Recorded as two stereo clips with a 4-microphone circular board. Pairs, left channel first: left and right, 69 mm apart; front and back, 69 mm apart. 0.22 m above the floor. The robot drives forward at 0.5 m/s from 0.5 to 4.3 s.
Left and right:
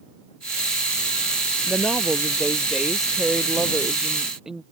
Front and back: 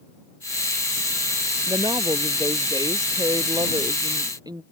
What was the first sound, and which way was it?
A woman speaking, 170° right.